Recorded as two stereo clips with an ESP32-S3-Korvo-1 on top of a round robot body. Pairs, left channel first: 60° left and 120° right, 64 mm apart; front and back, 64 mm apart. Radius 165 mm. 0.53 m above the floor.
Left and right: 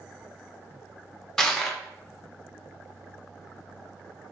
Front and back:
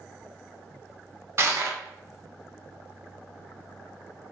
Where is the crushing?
140° left, 0.9 m.